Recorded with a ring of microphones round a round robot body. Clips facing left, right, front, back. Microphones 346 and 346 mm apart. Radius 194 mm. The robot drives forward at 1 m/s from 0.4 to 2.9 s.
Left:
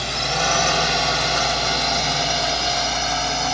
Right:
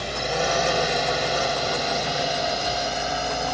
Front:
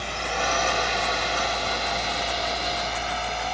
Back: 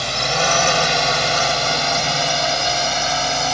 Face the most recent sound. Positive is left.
turn(degrees=165)